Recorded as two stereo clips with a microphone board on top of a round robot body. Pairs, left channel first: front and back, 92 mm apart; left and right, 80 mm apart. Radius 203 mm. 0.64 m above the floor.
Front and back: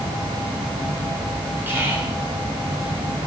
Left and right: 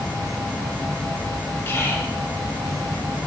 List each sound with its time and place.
1.7 s whispering: 130° left, 1.4 m